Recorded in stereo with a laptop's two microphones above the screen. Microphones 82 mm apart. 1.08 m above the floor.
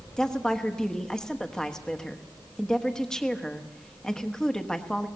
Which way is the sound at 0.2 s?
10° left (ahead or behind).